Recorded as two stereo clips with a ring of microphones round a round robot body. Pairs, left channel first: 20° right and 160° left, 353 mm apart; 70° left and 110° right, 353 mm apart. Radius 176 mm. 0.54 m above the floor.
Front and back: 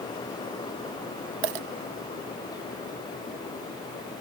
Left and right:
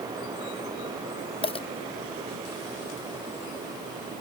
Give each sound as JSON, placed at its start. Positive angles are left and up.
{"t": 1.4, "sound": "a dropped coin", "azimuth_deg": 145}